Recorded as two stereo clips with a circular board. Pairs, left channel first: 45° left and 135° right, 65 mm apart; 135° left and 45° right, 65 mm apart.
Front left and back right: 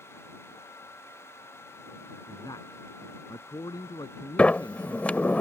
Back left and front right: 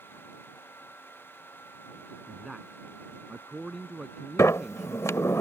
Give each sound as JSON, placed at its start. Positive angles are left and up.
{"t": 2.3, "sound": "a man speaking", "azimuth_deg": 40}
{"t": 4.4, "sound": "a sliding door", "azimuth_deg": 110}